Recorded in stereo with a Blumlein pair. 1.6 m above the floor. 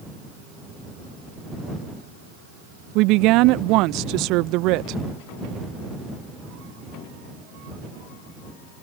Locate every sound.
3.0 s a woman speaking: 40° right